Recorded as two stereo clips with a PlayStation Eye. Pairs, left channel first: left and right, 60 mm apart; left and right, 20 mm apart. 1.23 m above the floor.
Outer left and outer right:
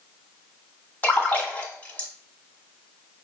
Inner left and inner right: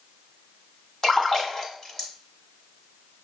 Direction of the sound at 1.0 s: 30° left (ahead or behind).